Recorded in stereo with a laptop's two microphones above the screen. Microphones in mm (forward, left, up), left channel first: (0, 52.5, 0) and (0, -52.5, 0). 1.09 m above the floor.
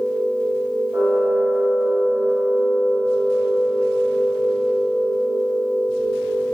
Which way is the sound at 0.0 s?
10° right (ahead or behind).